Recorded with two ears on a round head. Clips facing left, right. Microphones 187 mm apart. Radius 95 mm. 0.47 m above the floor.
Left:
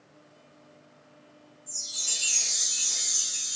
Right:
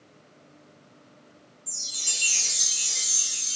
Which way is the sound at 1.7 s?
65° right (ahead or behind).